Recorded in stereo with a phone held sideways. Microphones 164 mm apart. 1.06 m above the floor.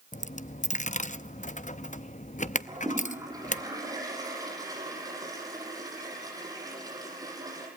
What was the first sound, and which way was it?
A dropped coin, 50° left (ahead or behind).